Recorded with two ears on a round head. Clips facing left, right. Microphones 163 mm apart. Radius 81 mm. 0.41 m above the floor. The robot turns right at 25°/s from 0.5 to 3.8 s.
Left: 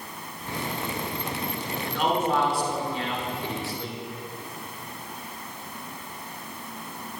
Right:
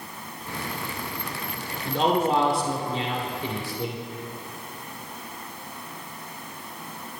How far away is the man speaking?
About 1.5 m.